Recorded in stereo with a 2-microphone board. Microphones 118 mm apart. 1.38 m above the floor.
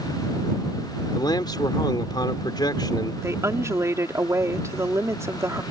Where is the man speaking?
35° left (ahead or behind).